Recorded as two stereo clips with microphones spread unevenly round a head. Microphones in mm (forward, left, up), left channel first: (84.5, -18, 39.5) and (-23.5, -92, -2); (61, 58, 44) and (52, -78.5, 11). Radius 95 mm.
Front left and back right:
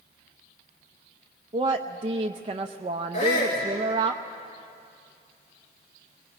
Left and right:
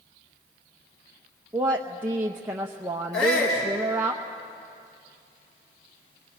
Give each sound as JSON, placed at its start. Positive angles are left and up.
{"t": 1.5, "sound": "a woman speaking", "azimuth_deg": -160, "distance_m": 0.7}
{"t": 3.1, "sound": "a shout", "azimuth_deg": 100, "distance_m": 3.5}